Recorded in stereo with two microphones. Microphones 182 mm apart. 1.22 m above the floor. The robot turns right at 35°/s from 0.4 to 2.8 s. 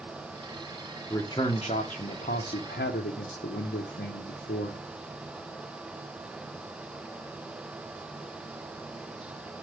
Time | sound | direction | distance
1.1 | a man speaking | 15° left | 0.7 m